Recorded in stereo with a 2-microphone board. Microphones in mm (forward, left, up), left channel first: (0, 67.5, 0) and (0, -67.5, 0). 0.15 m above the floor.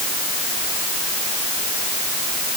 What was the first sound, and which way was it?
Only background noise.